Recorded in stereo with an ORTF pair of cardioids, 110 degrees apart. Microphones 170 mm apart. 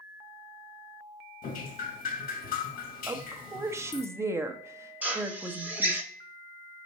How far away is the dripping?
About 1.3 m.